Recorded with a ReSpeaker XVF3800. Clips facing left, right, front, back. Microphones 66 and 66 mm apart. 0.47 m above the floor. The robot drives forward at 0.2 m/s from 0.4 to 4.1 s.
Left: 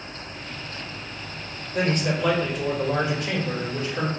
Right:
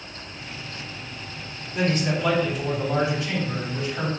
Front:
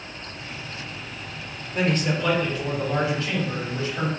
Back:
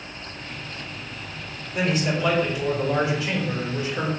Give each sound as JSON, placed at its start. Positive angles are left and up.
{"t": 1.7, "sound": "a man speaking", "azimuth_deg": 100, "distance_m": 2.0}